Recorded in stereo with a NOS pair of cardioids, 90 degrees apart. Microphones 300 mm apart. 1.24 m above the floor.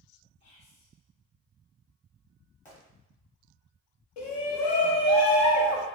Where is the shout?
65° left, 1.1 m.